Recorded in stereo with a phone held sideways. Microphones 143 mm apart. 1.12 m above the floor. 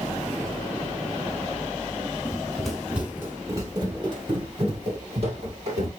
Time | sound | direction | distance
2.2 | running footsteps | 10° left (ahead or behind) | 1.8 m